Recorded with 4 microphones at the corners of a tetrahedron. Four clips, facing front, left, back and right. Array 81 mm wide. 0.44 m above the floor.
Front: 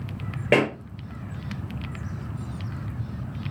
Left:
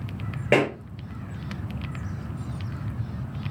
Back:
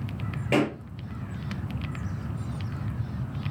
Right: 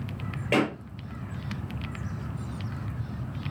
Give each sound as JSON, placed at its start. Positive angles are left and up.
{"t": 0.5, "sound": "a pop", "azimuth_deg": 40, "distance_m": 4.0}